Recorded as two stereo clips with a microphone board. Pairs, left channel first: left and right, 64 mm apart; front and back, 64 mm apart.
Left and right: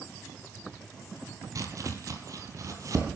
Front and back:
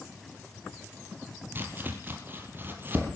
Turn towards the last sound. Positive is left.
turn(degrees=-120)